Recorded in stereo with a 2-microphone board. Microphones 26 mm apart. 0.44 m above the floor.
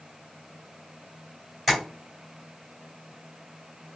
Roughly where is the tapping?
Centre.